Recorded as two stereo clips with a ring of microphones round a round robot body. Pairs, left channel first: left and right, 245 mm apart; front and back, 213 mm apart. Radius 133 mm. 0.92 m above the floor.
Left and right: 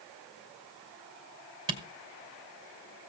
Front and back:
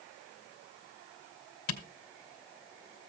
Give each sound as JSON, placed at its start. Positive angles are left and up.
{"t": 1.7, "sound": "a camera shutter", "azimuth_deg": -15, "distance_m": 2.5}